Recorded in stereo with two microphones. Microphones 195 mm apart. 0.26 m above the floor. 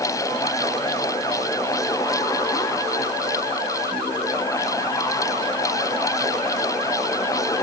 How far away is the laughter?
I don't hear laughter.